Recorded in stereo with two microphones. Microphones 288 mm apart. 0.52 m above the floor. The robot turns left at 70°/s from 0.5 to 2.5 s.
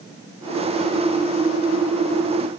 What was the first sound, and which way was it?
Only background noise.